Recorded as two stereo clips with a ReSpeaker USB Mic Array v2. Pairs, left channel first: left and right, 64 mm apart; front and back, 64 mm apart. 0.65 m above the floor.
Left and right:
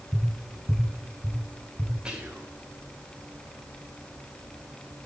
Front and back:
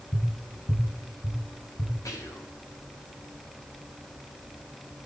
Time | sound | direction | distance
0.1 | tapping | 5° left | 4.5 m
2.0 | whispering | 15° right | 3 m